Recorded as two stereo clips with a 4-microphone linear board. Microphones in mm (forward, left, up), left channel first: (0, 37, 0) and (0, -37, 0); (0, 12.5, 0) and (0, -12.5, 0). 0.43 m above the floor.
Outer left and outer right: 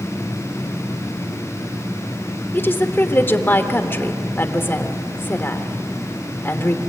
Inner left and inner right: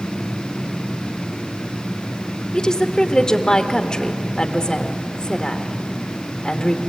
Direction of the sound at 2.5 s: 30° left (ahead or behind).